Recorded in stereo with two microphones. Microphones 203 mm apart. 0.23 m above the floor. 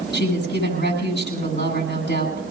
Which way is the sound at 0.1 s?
55° left (ahead or behind).